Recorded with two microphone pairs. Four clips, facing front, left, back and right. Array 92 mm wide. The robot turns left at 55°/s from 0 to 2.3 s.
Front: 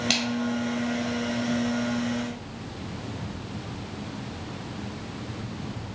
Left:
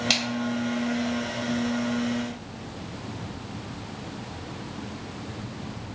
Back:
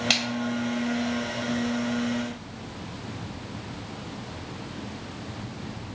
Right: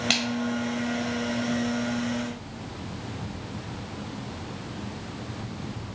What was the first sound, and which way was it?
A splash, 130° right.